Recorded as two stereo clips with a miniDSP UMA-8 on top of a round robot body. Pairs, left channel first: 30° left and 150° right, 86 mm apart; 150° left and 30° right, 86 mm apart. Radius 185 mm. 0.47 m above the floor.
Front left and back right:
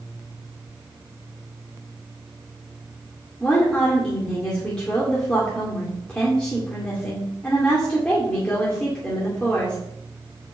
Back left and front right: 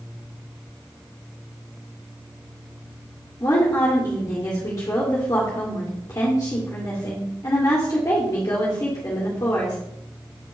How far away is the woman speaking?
About 2.5 m.